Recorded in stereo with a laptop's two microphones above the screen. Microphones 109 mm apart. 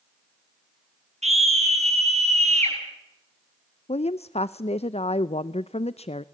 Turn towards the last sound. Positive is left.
turn(degrees=70)  # may be behind; listen again after turning